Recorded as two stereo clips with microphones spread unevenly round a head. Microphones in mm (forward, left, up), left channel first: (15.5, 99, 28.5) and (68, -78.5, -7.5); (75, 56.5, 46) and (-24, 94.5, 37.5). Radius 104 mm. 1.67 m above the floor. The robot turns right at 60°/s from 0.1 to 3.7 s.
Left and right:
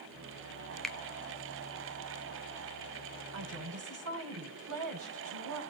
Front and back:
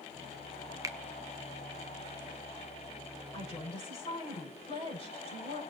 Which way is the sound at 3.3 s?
100° right.